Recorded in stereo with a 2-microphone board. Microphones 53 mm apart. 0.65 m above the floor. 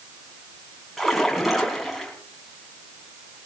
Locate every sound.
1.0 s a splash: centre (ahead or behind), 4.5 m